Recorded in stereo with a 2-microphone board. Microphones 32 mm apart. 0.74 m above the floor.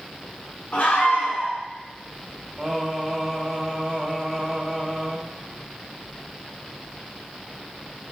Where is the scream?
55° left (ahead or behind), 5.5 m.